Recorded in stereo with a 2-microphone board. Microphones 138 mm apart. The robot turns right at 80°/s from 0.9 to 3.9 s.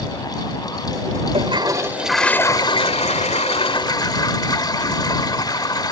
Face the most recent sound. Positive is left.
turn(degrees=140)